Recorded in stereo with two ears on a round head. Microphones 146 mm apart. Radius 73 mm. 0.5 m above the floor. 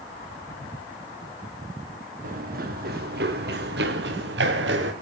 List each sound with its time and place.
2.2 s running footsteps: 50° right (ahead or behind), 1.9 m; by 4.9 s 75° right (ahead or behind), 3.5 m